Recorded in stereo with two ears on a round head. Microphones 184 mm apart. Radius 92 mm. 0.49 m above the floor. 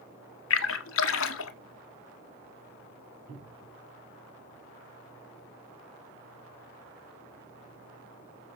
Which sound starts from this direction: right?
A cupboard door, at 3.3 s.